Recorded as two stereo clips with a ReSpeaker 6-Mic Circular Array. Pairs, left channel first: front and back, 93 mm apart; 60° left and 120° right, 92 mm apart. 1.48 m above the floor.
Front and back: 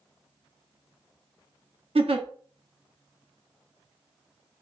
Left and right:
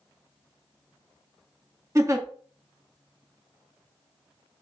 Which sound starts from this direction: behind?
A giggle, at 1.9 s.